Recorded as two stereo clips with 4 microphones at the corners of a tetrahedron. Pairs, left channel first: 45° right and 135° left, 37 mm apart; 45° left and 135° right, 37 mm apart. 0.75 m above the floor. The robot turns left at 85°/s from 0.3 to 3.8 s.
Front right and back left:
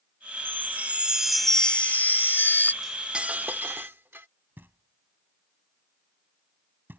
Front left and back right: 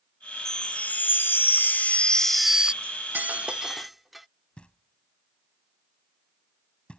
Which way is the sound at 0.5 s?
120° left.